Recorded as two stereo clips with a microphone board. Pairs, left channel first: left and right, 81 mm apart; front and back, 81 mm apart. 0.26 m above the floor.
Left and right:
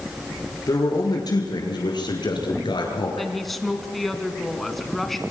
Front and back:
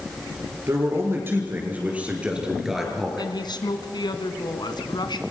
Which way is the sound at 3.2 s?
Straight ahead.